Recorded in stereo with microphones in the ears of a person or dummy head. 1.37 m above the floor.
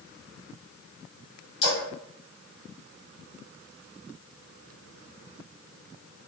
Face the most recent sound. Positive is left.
turn(degrees=35)  # may be behind; listen again after turning